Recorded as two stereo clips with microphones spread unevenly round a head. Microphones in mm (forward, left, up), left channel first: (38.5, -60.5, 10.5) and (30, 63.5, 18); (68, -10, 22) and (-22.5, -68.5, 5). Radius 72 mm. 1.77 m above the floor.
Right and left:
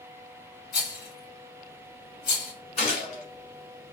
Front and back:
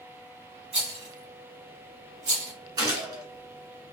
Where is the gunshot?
105° right, 1.8 m.